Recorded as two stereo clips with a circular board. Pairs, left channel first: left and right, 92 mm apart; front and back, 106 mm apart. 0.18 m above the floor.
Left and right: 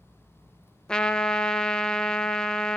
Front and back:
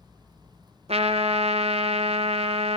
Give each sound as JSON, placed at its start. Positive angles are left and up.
{"t": 0.9, "sound": "a trumpet", "azimuth_deg": 170, "distance_m": 0.6}